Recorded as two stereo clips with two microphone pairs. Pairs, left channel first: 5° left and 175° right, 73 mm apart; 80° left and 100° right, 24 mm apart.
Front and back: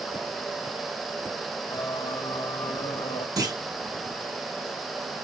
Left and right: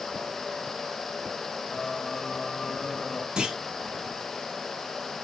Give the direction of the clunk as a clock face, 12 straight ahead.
5 o'clock.